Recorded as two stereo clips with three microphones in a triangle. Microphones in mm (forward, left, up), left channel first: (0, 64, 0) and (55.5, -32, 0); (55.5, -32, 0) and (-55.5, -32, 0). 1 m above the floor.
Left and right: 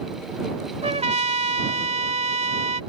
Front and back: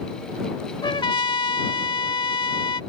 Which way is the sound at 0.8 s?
45° right.